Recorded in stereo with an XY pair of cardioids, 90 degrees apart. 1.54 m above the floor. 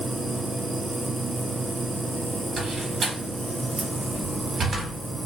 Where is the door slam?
50° right, 1.5 m.